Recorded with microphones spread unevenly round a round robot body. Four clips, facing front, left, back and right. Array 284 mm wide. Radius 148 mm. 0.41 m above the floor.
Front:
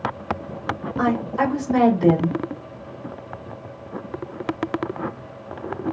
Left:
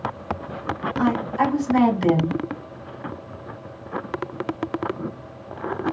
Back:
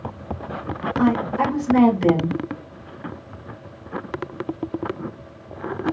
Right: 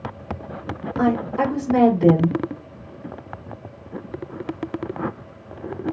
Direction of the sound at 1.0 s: 75° right.